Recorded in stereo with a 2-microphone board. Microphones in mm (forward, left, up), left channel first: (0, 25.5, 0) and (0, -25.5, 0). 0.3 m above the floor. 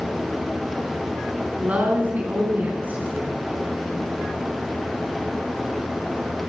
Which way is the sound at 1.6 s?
30° right (ahead or behind).